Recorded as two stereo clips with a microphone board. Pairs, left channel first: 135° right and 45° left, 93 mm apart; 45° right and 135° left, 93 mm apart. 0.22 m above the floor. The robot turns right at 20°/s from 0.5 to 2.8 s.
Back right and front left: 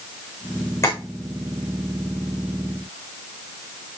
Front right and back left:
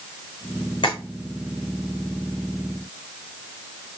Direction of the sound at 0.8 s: 80° right.